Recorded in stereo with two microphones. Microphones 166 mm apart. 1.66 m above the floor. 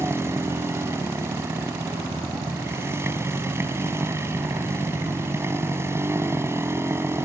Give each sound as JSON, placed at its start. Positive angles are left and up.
{"t": 0.0, "sound": "a motorcycle", "side_deg": -15}